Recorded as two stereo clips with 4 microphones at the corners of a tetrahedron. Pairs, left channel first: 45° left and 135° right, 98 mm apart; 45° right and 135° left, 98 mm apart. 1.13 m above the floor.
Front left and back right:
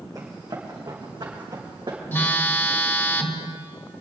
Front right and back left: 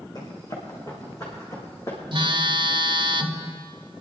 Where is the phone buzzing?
110° left, 0.9 m.